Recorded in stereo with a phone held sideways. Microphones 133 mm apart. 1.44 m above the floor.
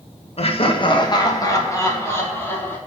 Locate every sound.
0.4 s laughter: 50° left (ahead or behind), 1.1 m; by 2.8 s 15° left (ahead or behind), 2.5 m